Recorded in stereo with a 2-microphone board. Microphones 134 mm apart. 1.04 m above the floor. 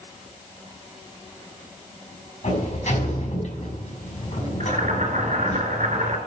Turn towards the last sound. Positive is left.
turn(degrees=-70)  # may be behind; listen again after turning